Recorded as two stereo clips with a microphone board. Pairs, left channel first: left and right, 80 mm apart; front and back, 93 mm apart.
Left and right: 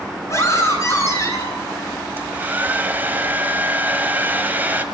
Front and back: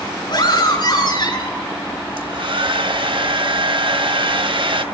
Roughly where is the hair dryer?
Behind right.